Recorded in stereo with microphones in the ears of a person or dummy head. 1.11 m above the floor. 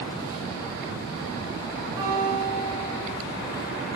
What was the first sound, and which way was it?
A guitar, 20° right (ahead or behind).